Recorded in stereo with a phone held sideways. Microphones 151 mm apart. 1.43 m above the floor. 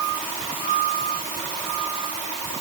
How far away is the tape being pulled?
No tape being pulled in this recording.